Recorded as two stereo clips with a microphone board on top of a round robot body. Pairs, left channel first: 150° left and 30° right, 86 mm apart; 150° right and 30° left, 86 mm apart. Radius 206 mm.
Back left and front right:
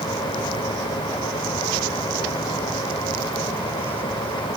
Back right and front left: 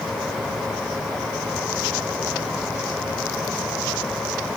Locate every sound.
Only background noise.